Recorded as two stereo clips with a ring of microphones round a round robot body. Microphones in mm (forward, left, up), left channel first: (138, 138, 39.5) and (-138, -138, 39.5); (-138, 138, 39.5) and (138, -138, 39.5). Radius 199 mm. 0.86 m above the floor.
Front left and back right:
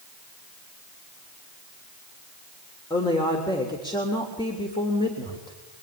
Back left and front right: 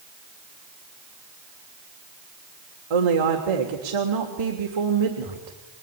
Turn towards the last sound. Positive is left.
turn(degrees=-35)